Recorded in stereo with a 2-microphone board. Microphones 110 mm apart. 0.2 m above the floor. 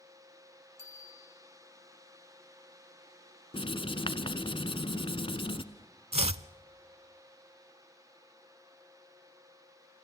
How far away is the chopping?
About 0.6 m.